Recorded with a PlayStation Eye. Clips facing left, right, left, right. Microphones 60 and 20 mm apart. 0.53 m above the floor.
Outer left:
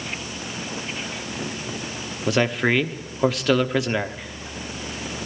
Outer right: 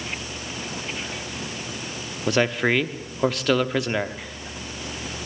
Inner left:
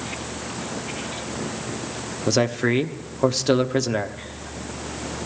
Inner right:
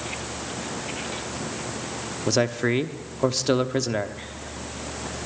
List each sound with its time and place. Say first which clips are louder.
2.3 s a man speaking: even, inner left 2 dB; centre (ahead or behind), 1.0 m